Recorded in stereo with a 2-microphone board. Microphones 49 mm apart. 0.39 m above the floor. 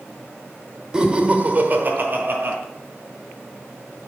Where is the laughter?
15° right (ahead or behind), 0.8 m; by 2.6 s 45° right (ahead or behind), 1.2 m.